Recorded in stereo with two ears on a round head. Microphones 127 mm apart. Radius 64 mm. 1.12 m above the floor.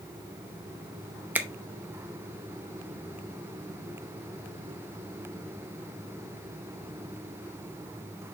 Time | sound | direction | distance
1.4 | a finger snap | 10° right (ahead or behind) | 0.7 m